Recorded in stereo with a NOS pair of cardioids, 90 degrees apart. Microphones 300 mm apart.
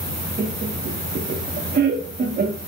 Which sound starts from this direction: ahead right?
Laughter, at 0.4 s.